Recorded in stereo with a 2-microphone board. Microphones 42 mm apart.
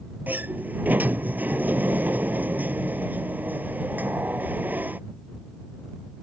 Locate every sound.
0.3 s a sliding door: 45° right (ahead or behind)